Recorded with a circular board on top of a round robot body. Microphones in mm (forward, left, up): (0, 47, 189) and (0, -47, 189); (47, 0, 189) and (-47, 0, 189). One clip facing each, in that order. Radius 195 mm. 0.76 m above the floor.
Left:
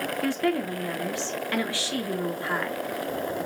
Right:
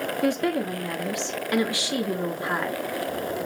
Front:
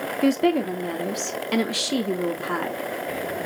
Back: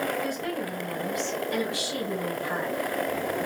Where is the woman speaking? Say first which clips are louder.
Right 2 dB, front 11 dB; 20° right, 1.2 m.